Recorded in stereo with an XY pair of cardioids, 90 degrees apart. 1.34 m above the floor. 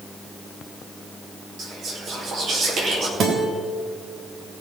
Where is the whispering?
65° right, 5 m.